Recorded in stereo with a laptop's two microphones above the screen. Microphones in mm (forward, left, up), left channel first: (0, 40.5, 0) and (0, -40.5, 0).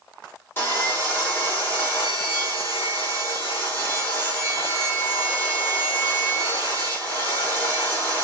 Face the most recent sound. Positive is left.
turn(degrees=30)  # may be behind; listen again after turning